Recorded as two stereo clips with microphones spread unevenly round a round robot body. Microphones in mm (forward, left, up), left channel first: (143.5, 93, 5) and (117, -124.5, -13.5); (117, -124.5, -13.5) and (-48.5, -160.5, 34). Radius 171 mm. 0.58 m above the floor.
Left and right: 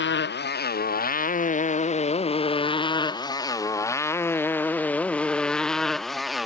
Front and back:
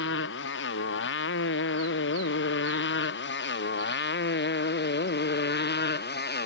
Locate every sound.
0.0 s a motorcycle: 45° left; by 6.5 s 10° right